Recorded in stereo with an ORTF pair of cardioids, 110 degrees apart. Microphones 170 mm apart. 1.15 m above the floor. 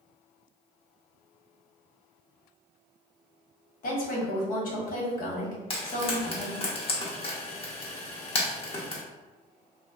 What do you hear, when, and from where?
3.8 s a woman speaking: 55° left, 1.2 m
5.7 s frying: 35° left, 0.9 m